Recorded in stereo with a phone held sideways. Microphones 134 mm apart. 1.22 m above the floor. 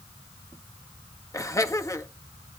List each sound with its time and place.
1.3 s laughter: 25° left (ahead or behind), 1.5 m